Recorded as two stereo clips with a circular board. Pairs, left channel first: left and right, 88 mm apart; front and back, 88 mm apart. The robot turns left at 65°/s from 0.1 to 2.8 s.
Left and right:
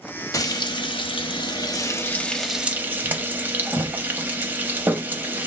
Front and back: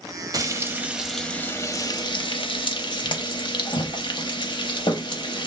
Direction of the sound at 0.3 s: 140° left.